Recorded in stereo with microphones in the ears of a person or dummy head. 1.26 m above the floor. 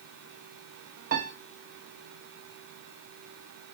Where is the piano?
45° right (ahead or behind), 0.9 m.